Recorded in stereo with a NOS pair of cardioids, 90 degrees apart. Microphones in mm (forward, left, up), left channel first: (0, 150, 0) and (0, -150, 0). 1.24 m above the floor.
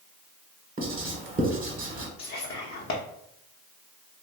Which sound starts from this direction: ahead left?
Whispering, at 2.2 s.